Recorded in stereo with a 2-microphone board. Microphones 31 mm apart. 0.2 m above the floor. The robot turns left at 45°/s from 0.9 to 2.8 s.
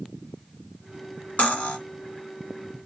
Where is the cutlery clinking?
55° left (ahead or behind), 1.3 m; by 1.8 s 50° left (ahead or behind), 1.3 m.